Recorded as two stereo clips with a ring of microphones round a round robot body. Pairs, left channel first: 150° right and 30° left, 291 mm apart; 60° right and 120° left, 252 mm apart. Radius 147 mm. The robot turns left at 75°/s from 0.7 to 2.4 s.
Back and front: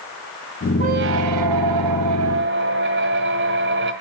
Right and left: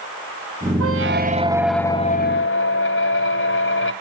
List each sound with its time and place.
0.8 s a squeak: 100° left, 1.9 m; by 3.9 s 20° right, 1.9 m